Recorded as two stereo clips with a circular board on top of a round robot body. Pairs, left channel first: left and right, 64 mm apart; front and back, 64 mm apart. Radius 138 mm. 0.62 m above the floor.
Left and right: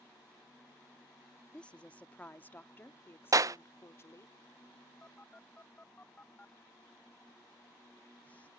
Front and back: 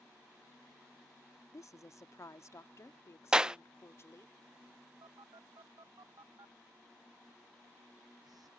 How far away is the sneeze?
I don't hear a sneeze.